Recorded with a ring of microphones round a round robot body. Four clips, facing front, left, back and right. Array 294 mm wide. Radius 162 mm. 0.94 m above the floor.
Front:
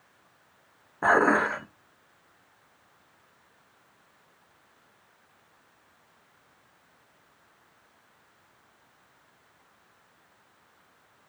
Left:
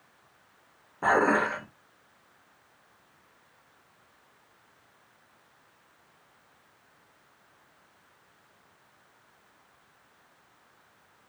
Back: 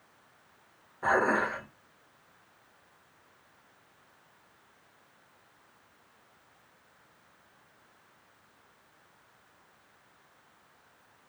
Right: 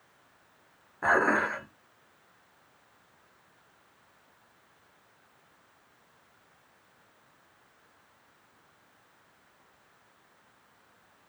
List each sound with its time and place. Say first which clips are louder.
1.0 s dishes clattering: left 2 dB, front 5 dB; 15° left, 1.6 m